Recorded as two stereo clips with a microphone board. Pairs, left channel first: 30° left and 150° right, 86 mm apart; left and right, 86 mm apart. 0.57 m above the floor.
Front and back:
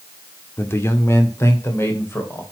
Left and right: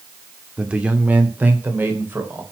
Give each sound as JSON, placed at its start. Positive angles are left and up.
{"t": 0.6, "sound": "a man speaking", "azimuth_deg": -15, "distance_m": 1.6}